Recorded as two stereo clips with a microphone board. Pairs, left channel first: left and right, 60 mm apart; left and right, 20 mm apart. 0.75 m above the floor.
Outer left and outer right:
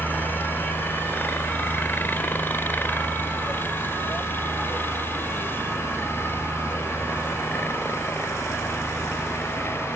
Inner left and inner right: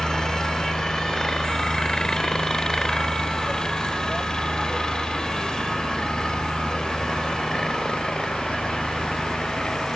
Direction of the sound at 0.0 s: 35° left (ahead or behind).